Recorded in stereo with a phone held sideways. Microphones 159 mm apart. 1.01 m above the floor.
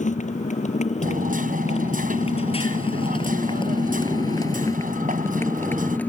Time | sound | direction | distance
0.0 | a motorcycle | 50° left (ahead or behind) | ?
1.0 | hammering | 55° right (ahead or behind) | ?